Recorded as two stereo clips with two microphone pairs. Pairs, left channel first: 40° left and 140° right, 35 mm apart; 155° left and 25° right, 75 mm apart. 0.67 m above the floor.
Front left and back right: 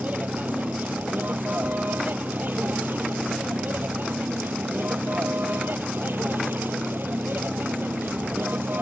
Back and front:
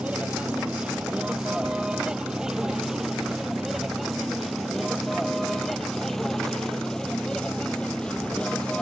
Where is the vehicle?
105° right; by 8.8 s 130° right.